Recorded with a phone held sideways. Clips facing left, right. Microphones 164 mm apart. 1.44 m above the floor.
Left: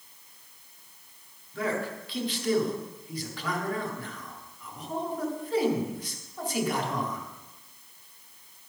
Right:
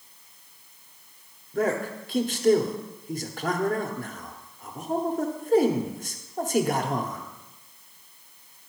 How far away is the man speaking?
About 1.0 m.